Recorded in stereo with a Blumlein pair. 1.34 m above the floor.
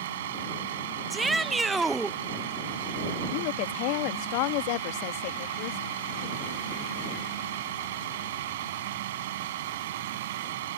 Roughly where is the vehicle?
Ahead right.